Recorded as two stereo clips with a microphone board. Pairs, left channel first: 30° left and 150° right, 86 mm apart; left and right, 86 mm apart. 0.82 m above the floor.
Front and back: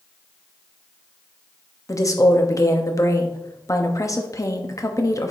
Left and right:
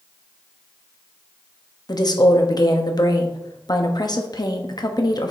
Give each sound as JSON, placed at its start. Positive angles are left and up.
{"t": 1.9, "sound": "a woman speaking", "azimuth_deg": 70, "distance_m": 1.1}